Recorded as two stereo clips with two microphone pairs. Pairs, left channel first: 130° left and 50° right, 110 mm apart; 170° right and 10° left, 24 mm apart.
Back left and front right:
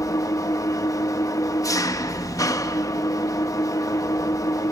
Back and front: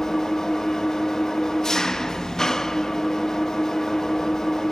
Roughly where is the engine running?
Behind left.